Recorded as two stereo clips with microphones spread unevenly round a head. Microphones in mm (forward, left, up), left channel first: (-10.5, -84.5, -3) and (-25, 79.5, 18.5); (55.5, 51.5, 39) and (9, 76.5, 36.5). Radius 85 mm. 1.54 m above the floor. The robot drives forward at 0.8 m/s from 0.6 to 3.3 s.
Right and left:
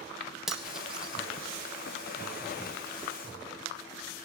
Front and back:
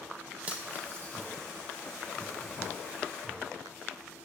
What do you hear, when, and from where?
0.5 s cutlery clinking: 155° left, 0.8 m; by 1.3 s 175° left, 1.1 m